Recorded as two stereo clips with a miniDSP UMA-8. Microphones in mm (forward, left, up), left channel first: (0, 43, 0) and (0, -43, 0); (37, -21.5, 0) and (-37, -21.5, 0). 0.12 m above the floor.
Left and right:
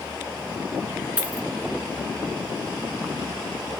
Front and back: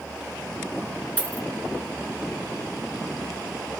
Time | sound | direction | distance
1.2 | a dropped coin | 35° right | 0.7 m